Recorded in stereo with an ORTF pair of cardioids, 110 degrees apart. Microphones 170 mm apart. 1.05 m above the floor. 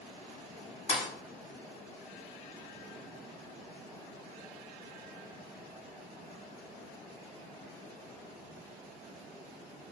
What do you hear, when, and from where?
0.9 s a thud: 45° left, 1.2 m